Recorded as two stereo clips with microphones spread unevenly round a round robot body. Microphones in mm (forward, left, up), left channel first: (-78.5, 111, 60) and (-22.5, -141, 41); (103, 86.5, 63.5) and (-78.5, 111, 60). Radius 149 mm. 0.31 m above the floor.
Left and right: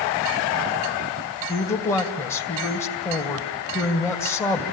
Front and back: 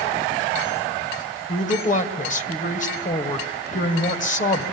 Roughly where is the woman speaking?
Ahead.